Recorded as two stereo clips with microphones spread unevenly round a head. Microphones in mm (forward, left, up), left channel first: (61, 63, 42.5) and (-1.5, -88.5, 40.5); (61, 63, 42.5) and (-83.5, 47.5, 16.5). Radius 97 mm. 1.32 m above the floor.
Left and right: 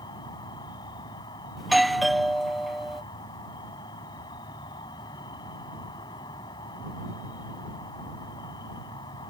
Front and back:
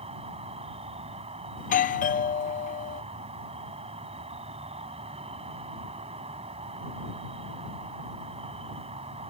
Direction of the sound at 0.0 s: 135° left.